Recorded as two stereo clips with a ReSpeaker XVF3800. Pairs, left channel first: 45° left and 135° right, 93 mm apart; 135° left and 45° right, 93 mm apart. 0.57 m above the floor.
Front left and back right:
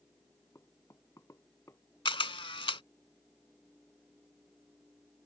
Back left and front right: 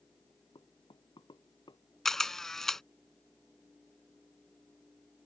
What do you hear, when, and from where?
0.6 s knocking: 105° left
2.0 s a camera shutter: 50° left